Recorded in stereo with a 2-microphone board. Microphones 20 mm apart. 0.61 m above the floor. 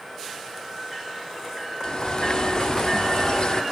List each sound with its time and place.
1.8 s a bird: 45° left (ahead or behind), 0.6 m